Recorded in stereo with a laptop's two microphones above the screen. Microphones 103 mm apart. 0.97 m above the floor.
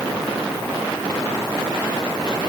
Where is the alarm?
I don't hear an alarm.